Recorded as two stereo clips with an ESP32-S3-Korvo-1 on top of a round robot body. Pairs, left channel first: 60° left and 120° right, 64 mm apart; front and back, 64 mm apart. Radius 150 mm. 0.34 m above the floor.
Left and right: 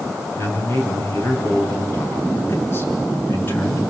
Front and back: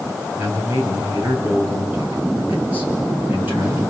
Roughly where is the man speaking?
Behind left.